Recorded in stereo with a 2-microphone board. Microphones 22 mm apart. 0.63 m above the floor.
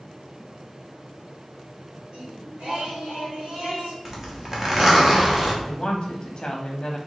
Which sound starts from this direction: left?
A woman speaking, at 5.6 s.